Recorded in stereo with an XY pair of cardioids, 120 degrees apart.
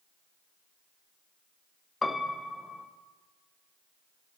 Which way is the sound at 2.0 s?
15° left.